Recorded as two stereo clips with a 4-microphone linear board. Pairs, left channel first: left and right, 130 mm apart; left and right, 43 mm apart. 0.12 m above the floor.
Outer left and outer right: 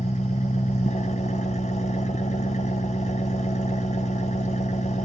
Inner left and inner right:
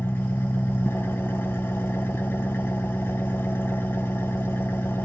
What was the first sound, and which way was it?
An engine running, 60° left (ahead or behind).